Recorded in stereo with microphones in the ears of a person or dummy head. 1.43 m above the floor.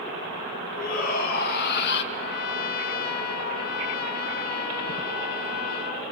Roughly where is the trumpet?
Left.